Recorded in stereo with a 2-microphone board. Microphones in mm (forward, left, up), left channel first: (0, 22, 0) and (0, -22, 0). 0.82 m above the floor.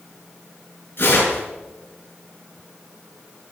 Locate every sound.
1.0 s tearing paper: 50° left (ahead or behind), 6.5 m